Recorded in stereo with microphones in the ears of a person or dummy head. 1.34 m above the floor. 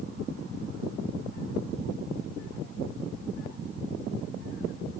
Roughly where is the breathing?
No breathing in this recording.